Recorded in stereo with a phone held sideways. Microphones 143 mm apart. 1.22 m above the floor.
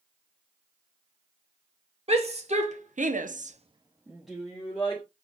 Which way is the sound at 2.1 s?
45° right (ahead or behind).